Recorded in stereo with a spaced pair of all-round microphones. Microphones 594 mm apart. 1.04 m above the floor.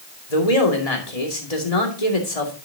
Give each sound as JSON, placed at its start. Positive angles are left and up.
{"t": 0.3, "sound": "a man speaking", "side_deg": 80, "distance_m": 2.5}